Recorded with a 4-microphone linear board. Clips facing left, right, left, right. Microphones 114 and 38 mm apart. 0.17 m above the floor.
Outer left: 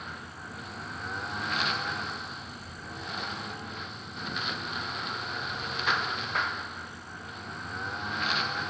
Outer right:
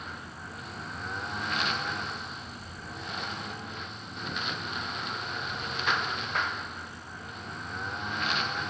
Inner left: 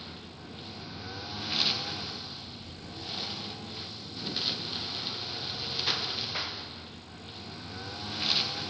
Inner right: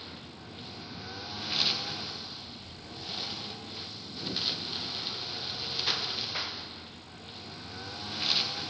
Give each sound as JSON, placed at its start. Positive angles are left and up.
{"t": 0.0, "sound": "a lawn mower", "side_deg": 0}